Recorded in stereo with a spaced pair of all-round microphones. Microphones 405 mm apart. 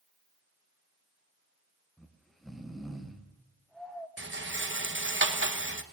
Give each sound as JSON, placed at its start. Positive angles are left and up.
{"t": 2.0, "sound": "snoring", "side_deg": 0, "distance_m": 1.0}
{"t": 4.2, "sound": "a rattle", "side_deg": -30, "distance_m": 0.9}